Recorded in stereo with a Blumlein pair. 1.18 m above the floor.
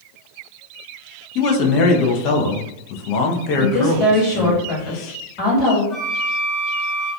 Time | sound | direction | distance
1.4 | a man speaking | 40° left | 0.5 m
3.6 | a woman speaking | 35° left | 1.4 m
5.9 | a flute | 25° left | 1.2 m